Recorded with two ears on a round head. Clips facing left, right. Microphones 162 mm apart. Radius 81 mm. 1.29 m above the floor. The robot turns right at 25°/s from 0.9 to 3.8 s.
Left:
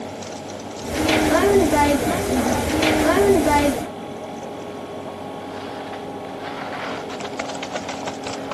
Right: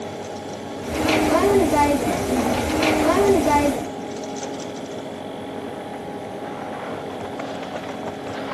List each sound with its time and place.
Only background noise.